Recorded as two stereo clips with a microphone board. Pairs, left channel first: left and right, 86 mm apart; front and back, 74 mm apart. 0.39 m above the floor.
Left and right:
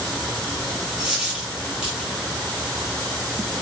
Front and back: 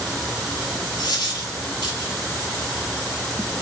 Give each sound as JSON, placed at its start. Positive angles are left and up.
{"t": 1.0, "sound": "a dropped coin", "azimuth_deg": -10, "distance_m": 1.8}